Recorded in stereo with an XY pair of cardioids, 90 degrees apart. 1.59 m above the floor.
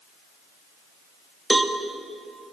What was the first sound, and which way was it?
A cowbell, 10° right.